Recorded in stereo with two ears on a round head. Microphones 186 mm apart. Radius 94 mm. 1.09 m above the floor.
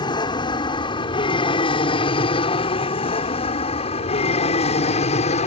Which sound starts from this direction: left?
An aircraft, at 0.0 s.